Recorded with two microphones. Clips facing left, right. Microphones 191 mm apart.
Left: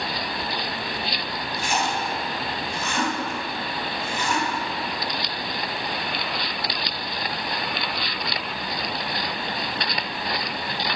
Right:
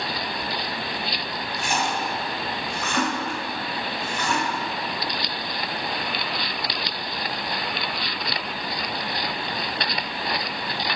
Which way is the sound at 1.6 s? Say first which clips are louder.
Even; 65° right (ahead or behind).